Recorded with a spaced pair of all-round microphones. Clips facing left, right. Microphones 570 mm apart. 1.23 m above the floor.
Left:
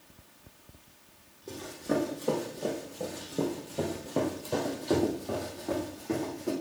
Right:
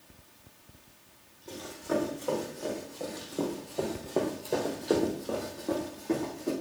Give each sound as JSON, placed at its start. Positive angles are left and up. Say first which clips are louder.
{"t": 1.5, "sound": "running footsteps", "louder": "left 1 dB", "side_deg": 65, "distance_m": 3.0}